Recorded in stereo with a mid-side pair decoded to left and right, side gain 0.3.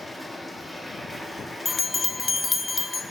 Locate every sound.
0.0 s a machine running: 10° left, 1.4 m
1.6 s a bell: 45° left, 0.7 m